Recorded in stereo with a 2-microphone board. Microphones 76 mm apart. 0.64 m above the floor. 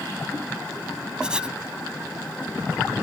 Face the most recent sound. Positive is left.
turn(degrees=-10)  # may be behind; listen again after turning